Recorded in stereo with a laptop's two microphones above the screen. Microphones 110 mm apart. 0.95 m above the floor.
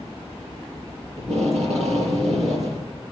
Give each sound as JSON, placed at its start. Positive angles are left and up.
{"t": 1.2, "sound": "tape being pulled", "side_deg": -85, "distance_m": 7.5}